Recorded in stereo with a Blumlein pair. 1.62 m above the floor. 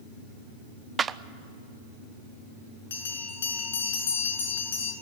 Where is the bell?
60° left, 5 m.